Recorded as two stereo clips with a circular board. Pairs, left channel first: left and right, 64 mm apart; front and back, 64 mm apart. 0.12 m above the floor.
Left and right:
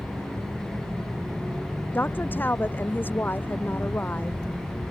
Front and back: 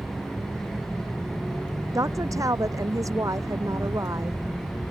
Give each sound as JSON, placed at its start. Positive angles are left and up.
{"t": 1.9, "sound": "a woman speaking", "azimuth_deg": 150}